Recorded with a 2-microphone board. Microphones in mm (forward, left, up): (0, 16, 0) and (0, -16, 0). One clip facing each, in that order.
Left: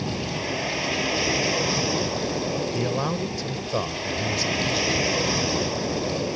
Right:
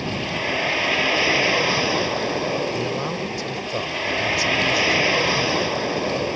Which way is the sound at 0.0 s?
30° right (ahead or behind).